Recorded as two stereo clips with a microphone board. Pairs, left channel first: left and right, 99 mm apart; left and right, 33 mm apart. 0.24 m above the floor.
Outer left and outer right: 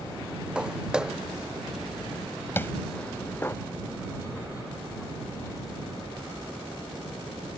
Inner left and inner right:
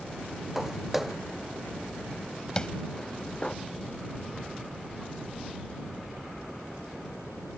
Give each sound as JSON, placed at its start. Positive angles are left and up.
{"t": 0.6, "sound": "footsteps", "side_deg": -10}
{"t": 2.6, "sound": "tapping", "side_deg": 20}